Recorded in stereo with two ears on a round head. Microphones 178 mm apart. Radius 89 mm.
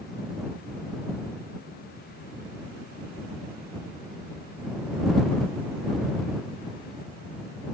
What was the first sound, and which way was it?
Only background noise.